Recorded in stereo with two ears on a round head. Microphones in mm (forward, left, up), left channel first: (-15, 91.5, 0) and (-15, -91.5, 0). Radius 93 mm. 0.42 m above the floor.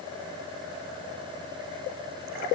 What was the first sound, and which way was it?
Only background noise.